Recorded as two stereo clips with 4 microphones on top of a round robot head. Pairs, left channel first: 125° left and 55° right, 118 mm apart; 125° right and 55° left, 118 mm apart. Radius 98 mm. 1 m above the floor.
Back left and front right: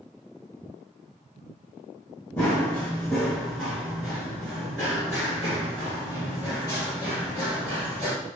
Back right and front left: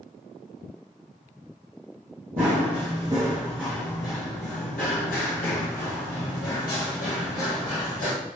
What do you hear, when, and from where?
2.4 s running footsteps: 50° left, 1.2 m; by 8.1 s 125° right, 3 m